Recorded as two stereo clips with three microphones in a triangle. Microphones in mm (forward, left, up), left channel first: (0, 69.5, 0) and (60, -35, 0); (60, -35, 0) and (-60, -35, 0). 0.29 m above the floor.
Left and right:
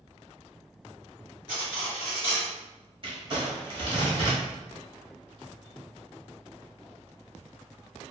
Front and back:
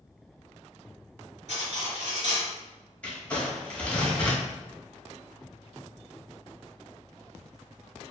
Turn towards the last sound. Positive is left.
turn(degrees=-75)